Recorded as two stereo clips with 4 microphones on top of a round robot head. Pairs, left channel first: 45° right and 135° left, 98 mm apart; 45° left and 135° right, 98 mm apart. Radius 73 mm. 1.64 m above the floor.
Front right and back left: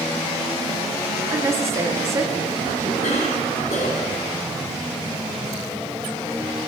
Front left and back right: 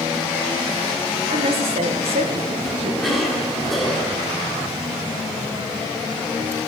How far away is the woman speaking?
About 2.0 m.